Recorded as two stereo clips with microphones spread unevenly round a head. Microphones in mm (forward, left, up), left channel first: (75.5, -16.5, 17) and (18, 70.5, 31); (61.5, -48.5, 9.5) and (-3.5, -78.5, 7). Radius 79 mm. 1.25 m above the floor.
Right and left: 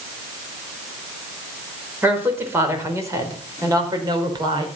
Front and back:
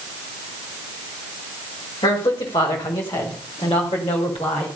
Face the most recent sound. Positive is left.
turn(degrees=80)